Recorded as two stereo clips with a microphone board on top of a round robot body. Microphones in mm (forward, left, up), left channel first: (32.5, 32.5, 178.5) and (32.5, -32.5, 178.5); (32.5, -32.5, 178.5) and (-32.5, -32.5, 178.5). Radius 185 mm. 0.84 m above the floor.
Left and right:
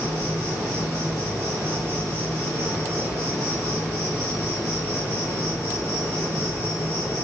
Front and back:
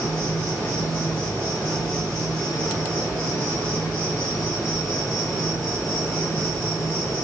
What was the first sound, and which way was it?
An insect, 30° left.